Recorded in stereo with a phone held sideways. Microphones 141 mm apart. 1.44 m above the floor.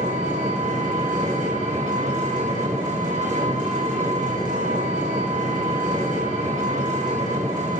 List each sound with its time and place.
0.0 s an engine running: 65° right (ahead or behind), 4 m